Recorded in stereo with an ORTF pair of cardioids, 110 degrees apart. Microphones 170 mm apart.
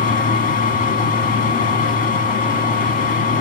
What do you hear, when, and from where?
0.0 s a machine running: 60° left, 1.6 m